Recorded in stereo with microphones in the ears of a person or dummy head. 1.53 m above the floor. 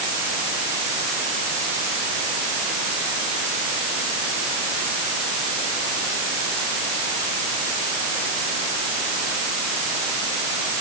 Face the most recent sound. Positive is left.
No sound to turn to.